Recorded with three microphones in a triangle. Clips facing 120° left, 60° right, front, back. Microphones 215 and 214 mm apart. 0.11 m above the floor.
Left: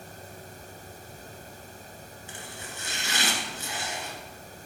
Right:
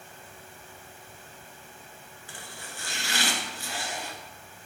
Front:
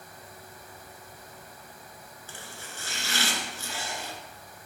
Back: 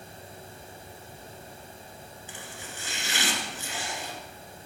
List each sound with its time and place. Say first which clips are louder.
2.3 s chopping: left 2 dB, back 1 dB; 140° left, 1.4 m